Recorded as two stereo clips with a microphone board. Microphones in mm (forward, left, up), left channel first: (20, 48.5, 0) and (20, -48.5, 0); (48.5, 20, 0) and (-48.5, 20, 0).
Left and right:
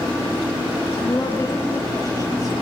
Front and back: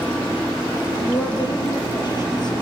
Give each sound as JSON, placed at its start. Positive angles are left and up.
{"t": 1.0, "sound": "a woman speaking", "azimuth_deg": 35, "distance_m": 4.5}